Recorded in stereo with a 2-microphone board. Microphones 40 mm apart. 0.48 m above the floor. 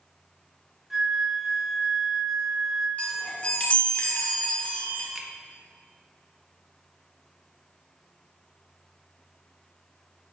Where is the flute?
5° right (ahead or behind), 0.9 m.